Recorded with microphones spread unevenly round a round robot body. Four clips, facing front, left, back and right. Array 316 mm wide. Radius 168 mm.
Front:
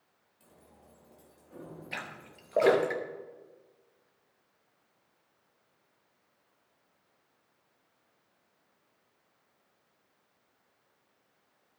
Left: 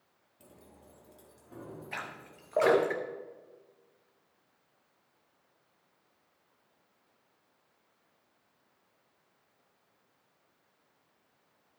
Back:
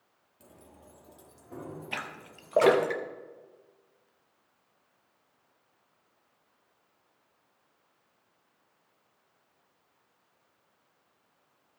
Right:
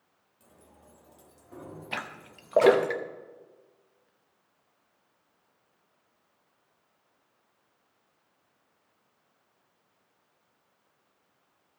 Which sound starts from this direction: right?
A splash, at 1.9 s.